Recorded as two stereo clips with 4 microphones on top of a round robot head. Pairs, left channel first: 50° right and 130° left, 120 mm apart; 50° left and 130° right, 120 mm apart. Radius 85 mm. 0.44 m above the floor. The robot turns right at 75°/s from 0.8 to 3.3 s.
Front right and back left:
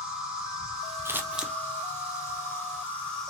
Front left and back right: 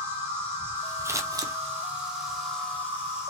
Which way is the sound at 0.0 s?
160° right.